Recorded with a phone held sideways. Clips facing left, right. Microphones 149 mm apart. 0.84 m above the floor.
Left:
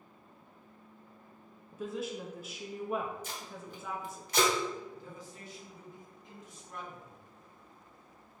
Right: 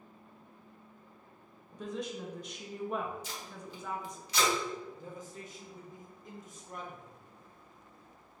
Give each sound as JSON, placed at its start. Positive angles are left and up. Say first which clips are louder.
{"t": 1.7, "sound": "a woman speaking", "louder": "left 1 dB", "side_deg": 5, "distance_m": 0.6}
{"t": 3.2, "sound": "tape being pulled", "louder": "left 1 dB", "side_deg": 50, "distance_m": 1.2}
{"t": 4.9, "sound": "a man speaking", "louder": "right 2 dB", "side_deg": -45, "distance_m": 1.2}